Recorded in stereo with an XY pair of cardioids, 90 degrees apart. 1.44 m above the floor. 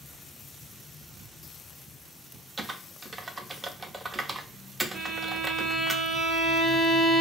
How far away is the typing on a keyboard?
About 0.6 m.